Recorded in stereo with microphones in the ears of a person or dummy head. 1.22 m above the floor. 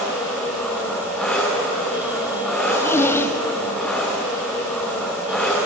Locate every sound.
0.0 s an engine running: 10° left (ahead or behind), 2.5 m
2.6 s a zipper: 10° left (ahead or behind), 0.6 m